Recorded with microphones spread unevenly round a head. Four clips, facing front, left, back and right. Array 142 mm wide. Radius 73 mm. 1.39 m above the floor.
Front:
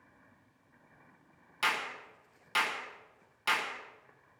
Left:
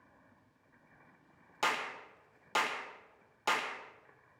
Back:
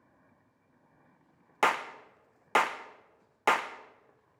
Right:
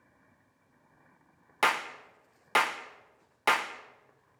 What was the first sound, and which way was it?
A clap, 160° right.